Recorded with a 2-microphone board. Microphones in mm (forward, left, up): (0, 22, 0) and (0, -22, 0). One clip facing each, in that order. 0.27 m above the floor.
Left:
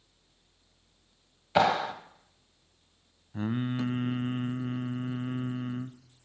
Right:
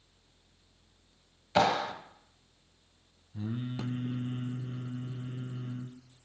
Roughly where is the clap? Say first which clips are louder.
Left 2 dB; centre.